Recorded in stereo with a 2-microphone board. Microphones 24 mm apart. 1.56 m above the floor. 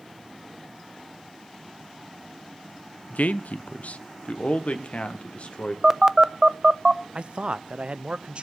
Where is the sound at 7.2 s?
45° right (ahead or behind), 0.6 m.